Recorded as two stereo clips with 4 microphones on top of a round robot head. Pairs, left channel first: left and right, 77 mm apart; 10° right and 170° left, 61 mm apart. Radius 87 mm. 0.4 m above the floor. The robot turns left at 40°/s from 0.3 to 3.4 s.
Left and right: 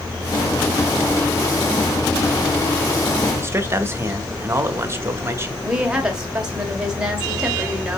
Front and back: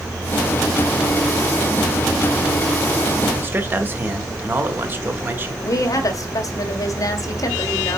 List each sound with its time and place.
3.4 s a man speaking: 140° right, 1.5 m
5.6 s a woman speaking: 10° right, 1.8 m